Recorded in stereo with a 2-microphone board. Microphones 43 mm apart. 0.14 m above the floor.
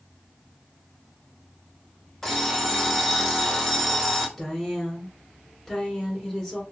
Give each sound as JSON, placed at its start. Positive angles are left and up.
{"t": 2.2, "sound": "an alarm clock", "side_deg": 10, "distance_m": 1.0}
{"t": 4.4, "sound": "a woman speaking", "side_deg": 15, "distance_m": 1.4}